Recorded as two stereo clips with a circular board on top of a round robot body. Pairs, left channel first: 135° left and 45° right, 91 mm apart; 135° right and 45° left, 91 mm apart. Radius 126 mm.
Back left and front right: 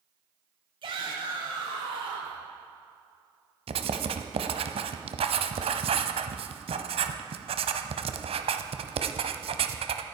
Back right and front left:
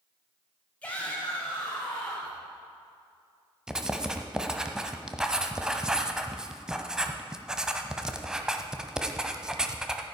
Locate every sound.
0.8 s a shout: 60° right, 2 m; by 2.4 s 55° right, 3 m
3.7 s writing: 40° right, 0.8 m